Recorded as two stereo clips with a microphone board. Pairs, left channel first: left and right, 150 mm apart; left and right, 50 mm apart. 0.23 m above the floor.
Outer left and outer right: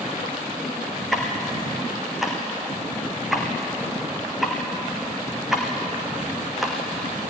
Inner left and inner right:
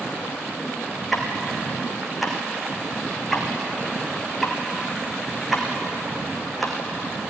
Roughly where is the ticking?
Centre.